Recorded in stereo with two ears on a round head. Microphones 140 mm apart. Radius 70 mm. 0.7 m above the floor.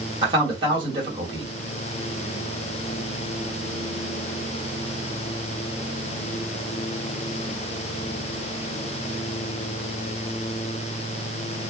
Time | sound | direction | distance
0.2 | a man speaking | 30° right (ahead or behind) | 1.4 m